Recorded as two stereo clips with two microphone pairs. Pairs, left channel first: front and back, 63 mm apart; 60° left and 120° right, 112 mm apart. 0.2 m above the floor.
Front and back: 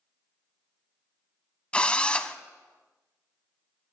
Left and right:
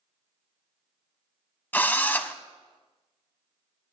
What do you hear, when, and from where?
1.7 s a drill: 15° left, 0.7 m